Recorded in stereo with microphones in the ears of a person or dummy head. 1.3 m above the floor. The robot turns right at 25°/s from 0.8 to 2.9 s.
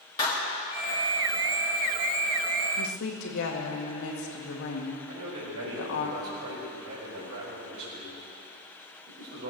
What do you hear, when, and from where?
0.2 s a clap: 20° left (ahead or behind), 2.5 m
2.8 s a woman speaking: 75° left (ahead or behind), 1.9 m; by 6.1 s 70° left (ahead or behind), 1.9 m
5.1 s a man speaking: 75° right (ahead or behind), 5 m